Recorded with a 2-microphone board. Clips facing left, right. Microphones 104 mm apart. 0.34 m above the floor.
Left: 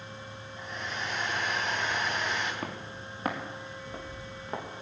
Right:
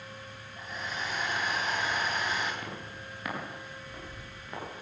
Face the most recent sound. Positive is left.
turn(degrees=25)  # may be behind; listen again after turning